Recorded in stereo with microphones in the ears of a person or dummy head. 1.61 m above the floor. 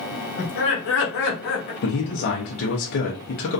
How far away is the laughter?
About 1.0 m.